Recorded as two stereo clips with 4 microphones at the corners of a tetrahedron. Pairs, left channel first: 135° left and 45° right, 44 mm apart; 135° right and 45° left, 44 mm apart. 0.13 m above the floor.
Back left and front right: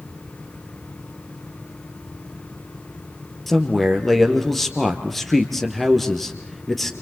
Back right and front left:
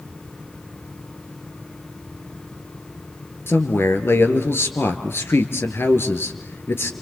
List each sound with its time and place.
3.5 s a man speaking: 140° right, 2.5 m